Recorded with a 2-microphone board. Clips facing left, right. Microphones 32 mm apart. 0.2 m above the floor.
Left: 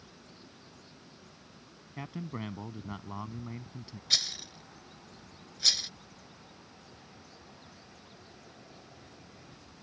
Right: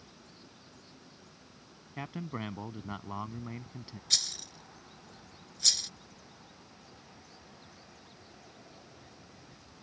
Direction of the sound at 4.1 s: 20° left (ahead or behind).